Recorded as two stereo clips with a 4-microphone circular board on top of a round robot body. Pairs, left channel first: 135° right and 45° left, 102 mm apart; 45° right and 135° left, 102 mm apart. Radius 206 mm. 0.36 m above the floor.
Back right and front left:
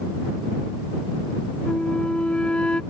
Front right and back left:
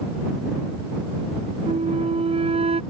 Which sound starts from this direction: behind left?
A flute, at 1.7 s.